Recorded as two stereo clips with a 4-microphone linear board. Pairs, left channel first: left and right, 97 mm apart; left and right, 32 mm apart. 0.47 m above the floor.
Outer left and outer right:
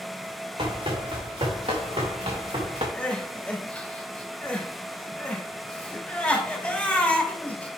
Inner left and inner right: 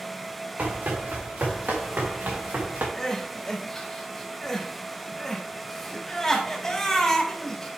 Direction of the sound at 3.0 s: 15° left (ahead or behind).